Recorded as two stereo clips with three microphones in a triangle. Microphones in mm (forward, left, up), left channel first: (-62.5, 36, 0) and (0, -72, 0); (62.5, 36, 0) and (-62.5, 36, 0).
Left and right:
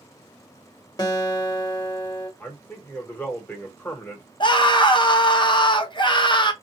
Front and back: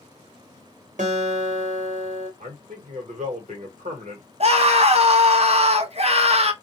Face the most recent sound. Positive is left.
turn(degrees=165)